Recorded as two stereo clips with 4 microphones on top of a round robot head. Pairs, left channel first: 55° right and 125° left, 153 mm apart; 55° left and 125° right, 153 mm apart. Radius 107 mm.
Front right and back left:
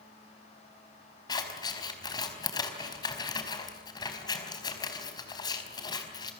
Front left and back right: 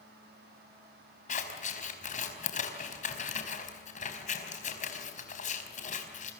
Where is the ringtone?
No ringtone in this recording.